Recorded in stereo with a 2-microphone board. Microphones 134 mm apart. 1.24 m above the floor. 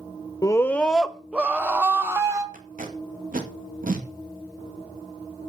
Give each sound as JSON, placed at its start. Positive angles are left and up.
{"t": 0.4, "sound": "a scream", "side_deg": 25, "distance_m": 0.6}
{"t": 2.5, "sound": "tape being pulled", "side_deg": -80, "distance_m": 2.0}